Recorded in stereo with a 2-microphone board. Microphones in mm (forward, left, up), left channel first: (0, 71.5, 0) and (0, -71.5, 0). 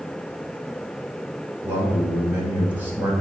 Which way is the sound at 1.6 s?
10° right (ahead or behind).